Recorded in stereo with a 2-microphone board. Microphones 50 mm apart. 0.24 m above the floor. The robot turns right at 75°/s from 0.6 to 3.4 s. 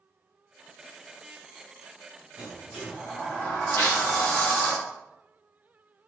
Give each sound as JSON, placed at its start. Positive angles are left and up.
{"t": 2.4, "sound": "a sliding door", "azimuth_deg": -35, "distance_m": 3.0}
{"t": 3.8, "sound": "tearing paper", "side_deg": 55, "distance_m": 3.0}